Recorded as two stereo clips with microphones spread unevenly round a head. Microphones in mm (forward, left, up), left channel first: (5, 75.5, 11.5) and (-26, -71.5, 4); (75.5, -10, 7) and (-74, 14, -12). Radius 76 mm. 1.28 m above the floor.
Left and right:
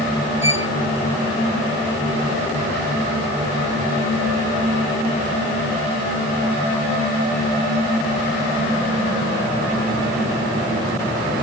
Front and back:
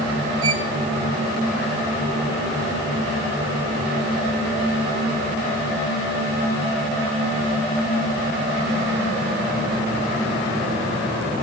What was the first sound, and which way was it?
A violin, 175° right.